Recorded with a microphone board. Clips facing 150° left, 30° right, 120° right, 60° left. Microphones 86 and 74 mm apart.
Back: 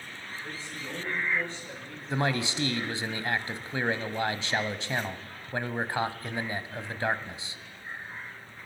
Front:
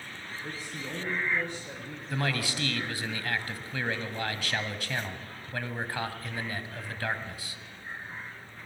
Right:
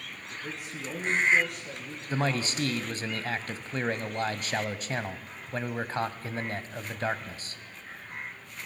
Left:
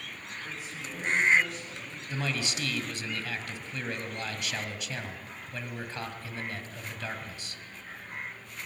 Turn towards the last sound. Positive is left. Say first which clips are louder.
# back 3 dB, right 5 dB
turn(degrees=-155)